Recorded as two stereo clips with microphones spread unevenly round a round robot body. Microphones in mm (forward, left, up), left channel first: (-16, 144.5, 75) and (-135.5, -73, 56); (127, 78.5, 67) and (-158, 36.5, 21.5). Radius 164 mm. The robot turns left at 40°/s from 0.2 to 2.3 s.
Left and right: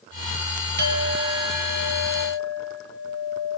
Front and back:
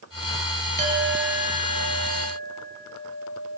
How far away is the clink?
About 5.5 m.